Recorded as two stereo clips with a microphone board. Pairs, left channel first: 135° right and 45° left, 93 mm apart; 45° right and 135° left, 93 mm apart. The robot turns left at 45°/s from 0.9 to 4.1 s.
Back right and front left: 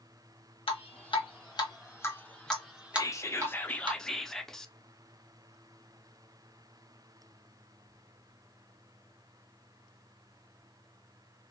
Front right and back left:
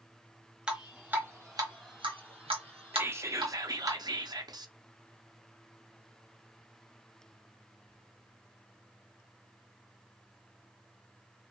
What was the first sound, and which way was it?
Dripping, 145° right.